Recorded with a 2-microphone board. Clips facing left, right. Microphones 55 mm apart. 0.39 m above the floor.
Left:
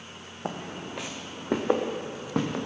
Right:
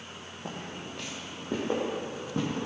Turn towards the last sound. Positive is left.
turn(degrees=75)  # may be behind; listen again after turning